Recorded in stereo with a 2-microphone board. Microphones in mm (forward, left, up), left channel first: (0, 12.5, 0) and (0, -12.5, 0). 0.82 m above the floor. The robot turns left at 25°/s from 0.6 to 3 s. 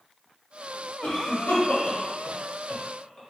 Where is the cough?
75° left (ahead or behind), 1.1 m; by 3.2 s 35° left (ahead or behind), 1.1 m.